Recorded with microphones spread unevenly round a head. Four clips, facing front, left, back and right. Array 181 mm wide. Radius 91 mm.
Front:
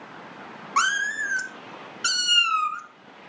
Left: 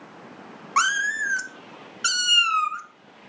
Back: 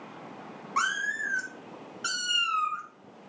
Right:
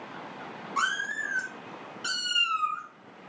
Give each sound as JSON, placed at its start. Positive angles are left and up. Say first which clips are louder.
{"t": 0.8, "sound": "a cat meowing", "louder": "left 7 dB, front 5 dB", "azimuth_deg": 40, "distance_m": 0.7}